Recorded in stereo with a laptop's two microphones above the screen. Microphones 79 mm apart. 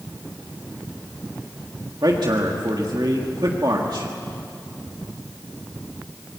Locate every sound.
2.0 s a man speaking: 65° right (ahead or behind), 1.6 m